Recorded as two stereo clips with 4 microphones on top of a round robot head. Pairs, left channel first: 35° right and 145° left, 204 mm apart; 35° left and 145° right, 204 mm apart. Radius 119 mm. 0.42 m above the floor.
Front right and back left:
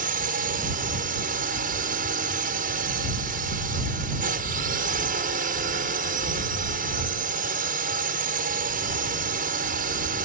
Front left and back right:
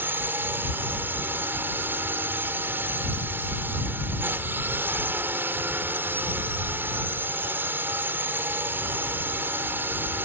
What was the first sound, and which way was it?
A drone, 140° left.